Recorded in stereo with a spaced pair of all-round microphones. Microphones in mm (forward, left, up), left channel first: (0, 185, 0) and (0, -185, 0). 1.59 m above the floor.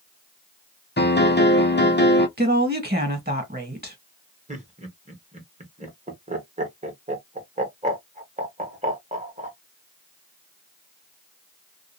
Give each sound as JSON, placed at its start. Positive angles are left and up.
{"t": 1.0, "sound": "a piano", "side_deg": 30, "distance_m": 0.7}
{"t": 2.4, "sound": "a woman speaking", "side_deg": -25, "distance_m": 1.6}
{"t": 4.5, "sound": "laughter", "side_deg": -20, "distance_m": 1.3}